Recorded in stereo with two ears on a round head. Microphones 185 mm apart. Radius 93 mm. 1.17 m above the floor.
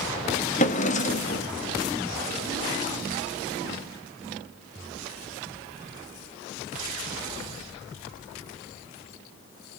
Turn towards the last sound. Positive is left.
turn(degrees=35)  # may be behind; listen again after turning